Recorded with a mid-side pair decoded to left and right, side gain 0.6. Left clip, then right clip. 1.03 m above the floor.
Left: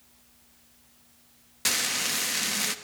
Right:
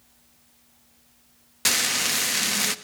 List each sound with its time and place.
1.6 s frying: 25° right, 1.0 m